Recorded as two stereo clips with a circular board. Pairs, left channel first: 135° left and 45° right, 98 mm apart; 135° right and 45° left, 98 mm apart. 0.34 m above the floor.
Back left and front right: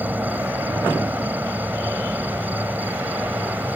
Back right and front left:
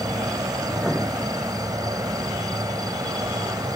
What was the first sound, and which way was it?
An insect, 20° left.